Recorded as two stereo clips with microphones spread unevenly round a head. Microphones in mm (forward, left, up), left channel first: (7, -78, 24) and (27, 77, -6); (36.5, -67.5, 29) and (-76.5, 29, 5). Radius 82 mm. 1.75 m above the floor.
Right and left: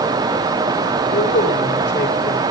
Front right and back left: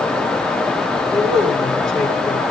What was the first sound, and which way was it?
A man speaking, 125° right.